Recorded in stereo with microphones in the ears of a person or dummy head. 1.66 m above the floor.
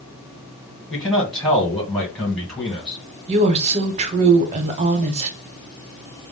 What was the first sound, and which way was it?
A man speaking, 5° left (ahead or behind).